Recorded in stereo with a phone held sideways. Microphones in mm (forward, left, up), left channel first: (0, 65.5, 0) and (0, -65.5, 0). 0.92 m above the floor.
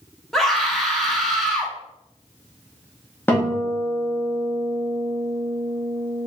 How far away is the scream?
About 1.2 m.